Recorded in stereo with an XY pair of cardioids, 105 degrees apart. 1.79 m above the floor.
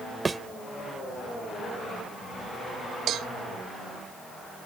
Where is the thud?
25° right.